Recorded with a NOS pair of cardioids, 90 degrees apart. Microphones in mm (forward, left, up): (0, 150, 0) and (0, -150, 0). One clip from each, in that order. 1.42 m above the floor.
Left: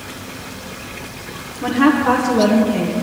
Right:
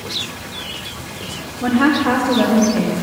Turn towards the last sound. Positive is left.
turn(degrees=35)